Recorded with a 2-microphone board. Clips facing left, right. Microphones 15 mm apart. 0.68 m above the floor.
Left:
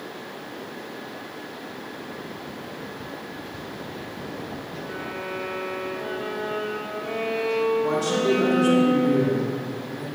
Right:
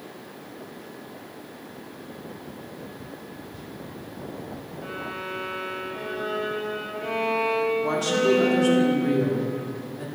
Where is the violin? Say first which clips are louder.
Right 1 dB; 25° right (ahead or behind), 3.5 m.